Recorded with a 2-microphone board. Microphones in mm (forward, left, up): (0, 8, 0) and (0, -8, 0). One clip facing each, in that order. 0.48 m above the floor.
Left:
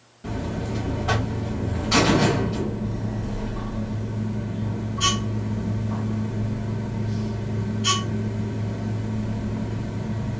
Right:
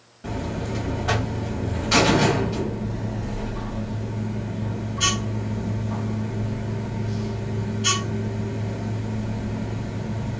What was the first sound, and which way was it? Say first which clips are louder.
A buzzer: even; 20° right (ahead or behind).